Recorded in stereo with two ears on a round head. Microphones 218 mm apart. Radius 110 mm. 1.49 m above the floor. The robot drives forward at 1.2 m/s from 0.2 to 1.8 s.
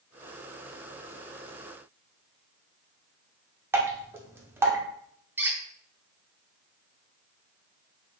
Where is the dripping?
10° right (ahead or behind), 0.8 m.